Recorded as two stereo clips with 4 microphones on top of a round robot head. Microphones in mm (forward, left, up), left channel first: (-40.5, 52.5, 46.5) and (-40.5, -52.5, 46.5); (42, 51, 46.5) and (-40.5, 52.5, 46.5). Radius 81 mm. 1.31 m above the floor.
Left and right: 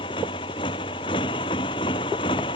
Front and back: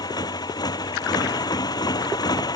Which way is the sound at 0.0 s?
35° left.